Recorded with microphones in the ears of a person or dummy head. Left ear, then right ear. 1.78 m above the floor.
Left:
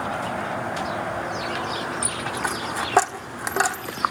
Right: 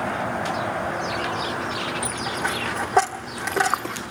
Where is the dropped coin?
10° left (ahead or behind), 1.4 m.